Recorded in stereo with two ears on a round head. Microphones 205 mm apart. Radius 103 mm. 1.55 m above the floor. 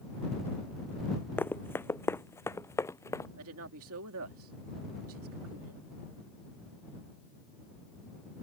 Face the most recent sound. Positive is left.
turn(degrees=-70)  # may be behind; listen again after turning